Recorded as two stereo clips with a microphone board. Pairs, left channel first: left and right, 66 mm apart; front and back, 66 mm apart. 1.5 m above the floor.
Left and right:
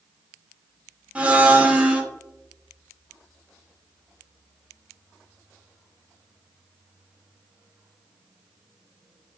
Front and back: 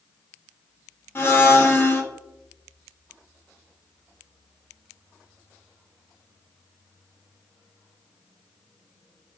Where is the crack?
No crack in this recording.